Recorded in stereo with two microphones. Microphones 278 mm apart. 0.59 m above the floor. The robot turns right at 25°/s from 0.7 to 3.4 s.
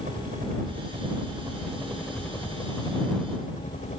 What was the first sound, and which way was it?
A helicopter, 35° right.